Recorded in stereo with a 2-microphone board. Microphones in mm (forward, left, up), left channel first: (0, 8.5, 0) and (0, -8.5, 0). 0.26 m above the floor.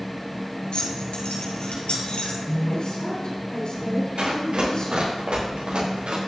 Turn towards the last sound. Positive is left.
turn(degrees=-75)  # may be behind; listen again after turning